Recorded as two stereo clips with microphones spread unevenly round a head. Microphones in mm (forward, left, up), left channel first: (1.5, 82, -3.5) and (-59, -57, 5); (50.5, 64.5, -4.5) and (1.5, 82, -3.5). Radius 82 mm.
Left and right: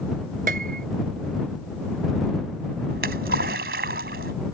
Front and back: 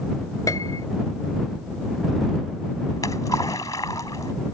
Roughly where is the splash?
Right.